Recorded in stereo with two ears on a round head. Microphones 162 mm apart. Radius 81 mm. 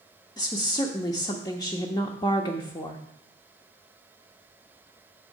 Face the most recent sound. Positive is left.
turn(degrees=20)  # may be behind; listen again after turning